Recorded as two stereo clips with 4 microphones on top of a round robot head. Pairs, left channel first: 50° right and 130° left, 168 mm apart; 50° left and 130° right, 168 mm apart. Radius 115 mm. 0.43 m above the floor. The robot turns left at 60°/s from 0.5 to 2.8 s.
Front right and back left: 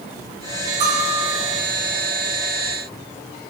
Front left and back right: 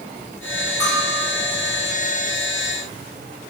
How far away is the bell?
About 3 m.